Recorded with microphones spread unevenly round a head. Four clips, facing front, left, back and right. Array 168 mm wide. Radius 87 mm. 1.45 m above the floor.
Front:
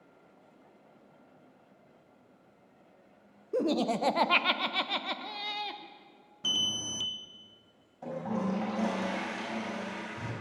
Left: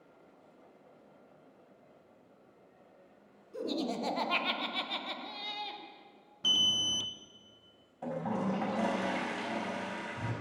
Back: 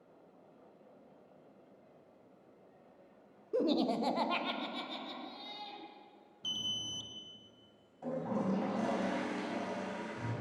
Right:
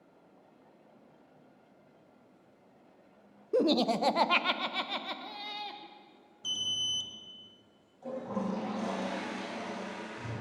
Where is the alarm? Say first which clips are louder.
Left 6 dB, front 8 dB; 35° left, 0.6 m.